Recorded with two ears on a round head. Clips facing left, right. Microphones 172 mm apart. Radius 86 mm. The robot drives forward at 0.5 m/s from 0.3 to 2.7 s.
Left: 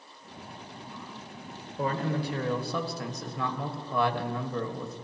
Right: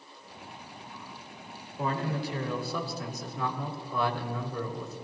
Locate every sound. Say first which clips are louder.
1.8 s a man speaking: left 2 dB; 40° left (ahead or behind), 1.8 m; by 5.0 s 50° left (ahead or behind), 1.5 m